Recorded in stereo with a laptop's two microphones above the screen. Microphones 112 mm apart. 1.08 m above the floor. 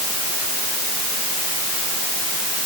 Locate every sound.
Only background noise.